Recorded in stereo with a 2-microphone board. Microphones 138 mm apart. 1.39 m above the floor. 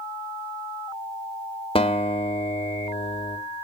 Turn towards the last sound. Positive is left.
turn(degrees=40)  # may be behind; listen again after turning